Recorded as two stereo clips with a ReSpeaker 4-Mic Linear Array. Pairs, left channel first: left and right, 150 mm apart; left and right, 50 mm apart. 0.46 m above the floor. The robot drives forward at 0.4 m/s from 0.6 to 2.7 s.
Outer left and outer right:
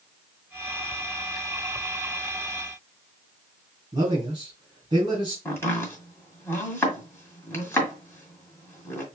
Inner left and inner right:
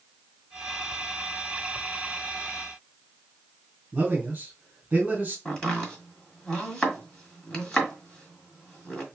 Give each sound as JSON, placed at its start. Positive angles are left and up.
{"t": 3.9, "sound": "a man speaking", "side_deg": -30, "distance_m": 2.0}
{"t": 5.5, "sound": "chopping", "side_deg": 15, "distance_m": 1.7}